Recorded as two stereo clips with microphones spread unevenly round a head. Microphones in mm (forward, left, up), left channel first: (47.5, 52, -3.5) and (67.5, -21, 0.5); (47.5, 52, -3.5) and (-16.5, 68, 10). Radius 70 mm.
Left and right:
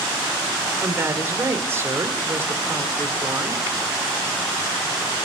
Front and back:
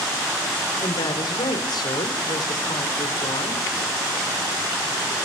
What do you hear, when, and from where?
0.8 s a woman speaking: 20° right, 3.5 m